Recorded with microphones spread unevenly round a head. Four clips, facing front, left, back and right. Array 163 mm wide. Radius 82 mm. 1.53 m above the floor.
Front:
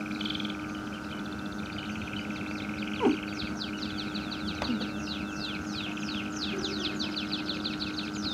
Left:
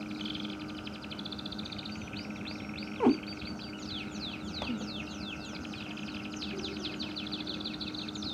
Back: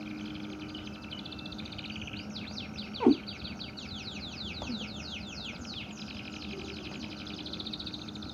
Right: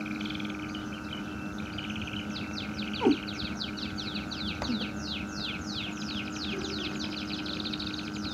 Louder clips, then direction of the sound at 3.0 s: Right 1 dB, back 2 dB; 75° left.